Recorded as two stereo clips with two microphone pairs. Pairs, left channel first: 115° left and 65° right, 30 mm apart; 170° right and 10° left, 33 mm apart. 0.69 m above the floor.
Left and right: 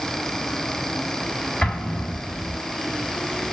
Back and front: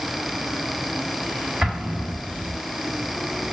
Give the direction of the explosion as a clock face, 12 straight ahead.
10 o'clock.